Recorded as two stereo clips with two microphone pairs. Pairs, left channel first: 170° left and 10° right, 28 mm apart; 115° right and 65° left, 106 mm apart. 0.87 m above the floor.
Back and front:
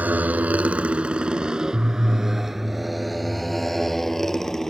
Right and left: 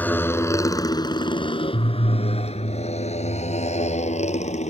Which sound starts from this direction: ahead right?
A motorcycle, at 0.0 s.